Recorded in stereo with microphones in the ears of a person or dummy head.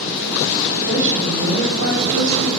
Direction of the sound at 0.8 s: 85° right.